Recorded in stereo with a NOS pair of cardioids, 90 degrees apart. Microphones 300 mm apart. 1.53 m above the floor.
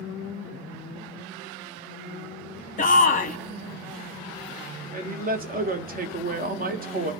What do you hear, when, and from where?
2.8 s a shout: 25° left, 0.8 m
4.9 s a man speaking: 30° right, 0.7 m